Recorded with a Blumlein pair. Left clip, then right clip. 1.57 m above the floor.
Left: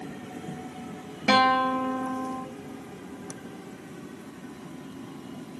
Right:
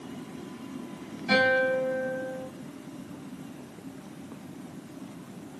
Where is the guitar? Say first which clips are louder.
Left 2 dB; 50° left, 3 m.